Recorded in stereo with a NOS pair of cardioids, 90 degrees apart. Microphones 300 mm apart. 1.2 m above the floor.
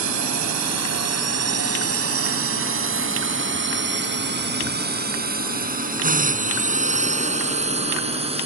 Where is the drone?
65° right; by 8.5 s 20° right.